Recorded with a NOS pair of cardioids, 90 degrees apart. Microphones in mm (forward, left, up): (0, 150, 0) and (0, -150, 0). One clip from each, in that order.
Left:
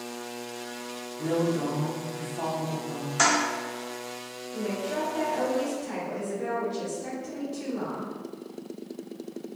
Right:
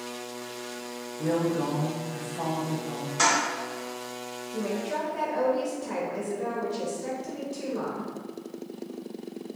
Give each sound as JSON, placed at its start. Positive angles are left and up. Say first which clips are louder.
{"t": 1.2, "sound": "a woman speaking", "louder": "even", "azimuth_deg": 0, "distance_m": 0.9}
{"t": 3.2, "sound": "a toilet flushing", "louder": "even", "azimuth_deg": 15, "distance_m": 1.8}
{"t": 4.5, "sound": "a woman speaking", "louder": "even", "azimuth_deg": -30, "distance_m": 1.3}